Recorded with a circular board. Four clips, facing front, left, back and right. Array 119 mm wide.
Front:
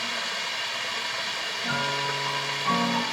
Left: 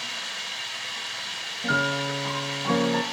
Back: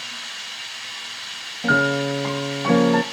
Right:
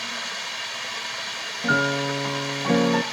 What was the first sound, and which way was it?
Running water, 35° right.